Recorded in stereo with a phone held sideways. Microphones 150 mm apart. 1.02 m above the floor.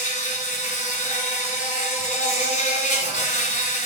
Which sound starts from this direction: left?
An insect, at 0.0 s.